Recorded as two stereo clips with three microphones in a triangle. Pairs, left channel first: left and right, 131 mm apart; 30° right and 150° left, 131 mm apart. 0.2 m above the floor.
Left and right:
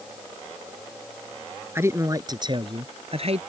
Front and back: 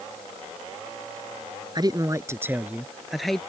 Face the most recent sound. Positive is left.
turn(degrees=-115)